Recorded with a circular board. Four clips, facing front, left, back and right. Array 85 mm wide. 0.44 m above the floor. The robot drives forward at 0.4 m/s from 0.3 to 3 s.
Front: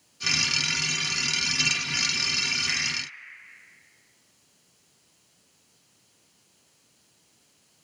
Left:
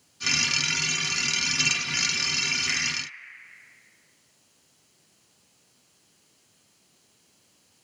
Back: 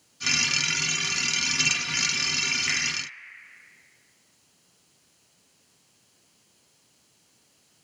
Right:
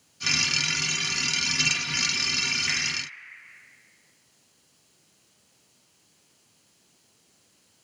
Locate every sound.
2.7 s a finger snap: 170° right, 0.8 m